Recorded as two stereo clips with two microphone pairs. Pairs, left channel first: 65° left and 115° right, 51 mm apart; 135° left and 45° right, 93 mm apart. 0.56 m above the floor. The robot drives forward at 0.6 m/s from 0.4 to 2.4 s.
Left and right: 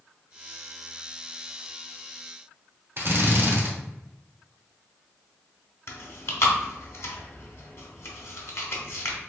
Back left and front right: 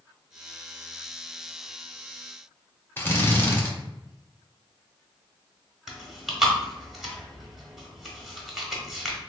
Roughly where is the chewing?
Ahead left.